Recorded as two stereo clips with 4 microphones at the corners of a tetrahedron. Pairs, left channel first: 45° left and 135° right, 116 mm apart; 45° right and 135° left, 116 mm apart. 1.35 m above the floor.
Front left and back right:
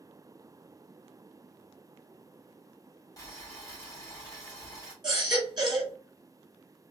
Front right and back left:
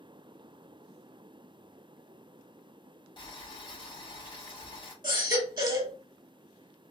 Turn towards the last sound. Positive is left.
turn(degrees=-175)